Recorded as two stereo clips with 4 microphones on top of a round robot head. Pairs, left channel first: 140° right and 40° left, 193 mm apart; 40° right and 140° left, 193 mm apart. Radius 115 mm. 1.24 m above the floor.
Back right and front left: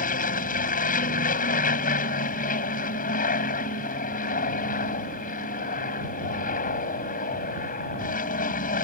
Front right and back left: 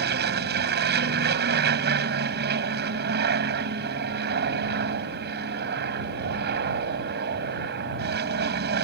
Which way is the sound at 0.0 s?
175° left.